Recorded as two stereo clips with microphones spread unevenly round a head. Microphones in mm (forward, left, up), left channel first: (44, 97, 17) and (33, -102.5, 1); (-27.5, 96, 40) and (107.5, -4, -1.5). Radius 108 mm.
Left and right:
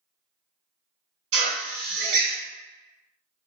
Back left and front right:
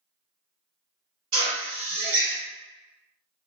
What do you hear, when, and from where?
1.3 s a drill: 70° right, 1.8 m